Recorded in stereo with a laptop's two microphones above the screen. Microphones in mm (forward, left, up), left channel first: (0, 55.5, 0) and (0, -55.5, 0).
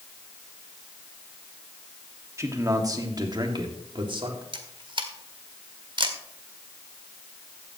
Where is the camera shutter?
45° right (ahead or behind), 1.6 m.